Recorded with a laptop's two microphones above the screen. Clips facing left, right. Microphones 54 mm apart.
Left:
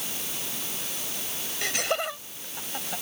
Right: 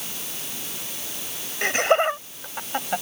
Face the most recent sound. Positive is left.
turn(degrees=-50)  # may be behind; listen again after turning